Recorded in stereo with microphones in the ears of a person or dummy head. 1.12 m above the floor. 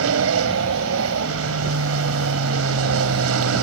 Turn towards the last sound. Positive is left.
turn(degrees=-75)  # may be behind; listen again after turning